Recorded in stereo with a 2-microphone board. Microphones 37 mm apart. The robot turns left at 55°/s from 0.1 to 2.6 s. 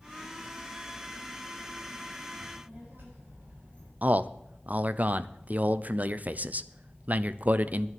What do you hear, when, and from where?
2.4 s a child speaking: 75° right (ahead or behind), 8 m; by 3.9 s 65° right (ahead or behind), 8 m
4.0 s a man speaking: 45° right (ahead or behind), 0.7 m